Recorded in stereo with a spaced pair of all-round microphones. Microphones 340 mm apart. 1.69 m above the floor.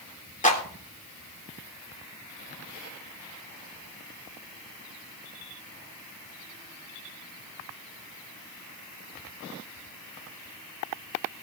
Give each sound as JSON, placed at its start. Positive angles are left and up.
{"t": 0.4, "sound": "a clap", "side_deg": 20, "distance_m": 3.5}